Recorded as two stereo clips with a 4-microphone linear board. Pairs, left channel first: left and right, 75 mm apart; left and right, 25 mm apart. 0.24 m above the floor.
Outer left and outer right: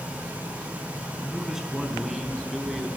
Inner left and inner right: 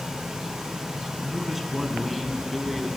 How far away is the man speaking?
About 2.5 m.